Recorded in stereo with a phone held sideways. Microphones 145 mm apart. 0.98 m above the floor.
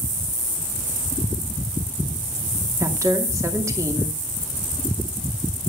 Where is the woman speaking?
20° right (ahead or behind), 2 m.